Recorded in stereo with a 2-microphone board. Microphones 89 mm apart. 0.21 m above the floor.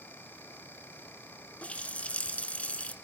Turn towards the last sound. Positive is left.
turn(degrees=15)  # may be behind; listen again after turning